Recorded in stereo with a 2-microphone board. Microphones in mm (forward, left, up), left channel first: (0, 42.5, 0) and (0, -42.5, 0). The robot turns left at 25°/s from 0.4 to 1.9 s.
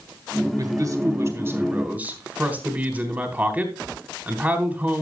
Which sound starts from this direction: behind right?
A man speaking, at 0.6 s.